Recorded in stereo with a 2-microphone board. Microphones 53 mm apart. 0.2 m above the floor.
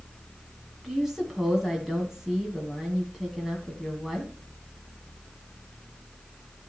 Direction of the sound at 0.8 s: 5° right (ahead or behind).